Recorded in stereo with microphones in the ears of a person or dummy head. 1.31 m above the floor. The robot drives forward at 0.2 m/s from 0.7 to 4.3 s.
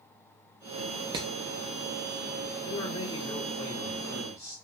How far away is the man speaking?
About 1.4 m.